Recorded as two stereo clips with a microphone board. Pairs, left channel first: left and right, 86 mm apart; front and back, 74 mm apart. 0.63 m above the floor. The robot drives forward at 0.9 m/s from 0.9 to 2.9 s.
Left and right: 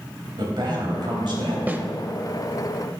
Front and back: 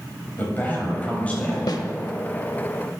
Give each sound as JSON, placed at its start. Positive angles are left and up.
{"t": 0.4, "sound": "a man speaking", "azimuth_deg": -65, "distance_m": 3.5}
{"t": 1.7, "sound": "a snare drum", "azimuth_deg": -20, "distance_m": 0.8}